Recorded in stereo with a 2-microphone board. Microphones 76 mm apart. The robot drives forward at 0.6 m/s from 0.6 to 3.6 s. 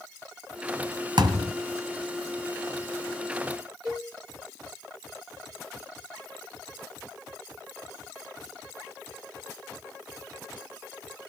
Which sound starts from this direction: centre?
A cowbell, at 3.9 s.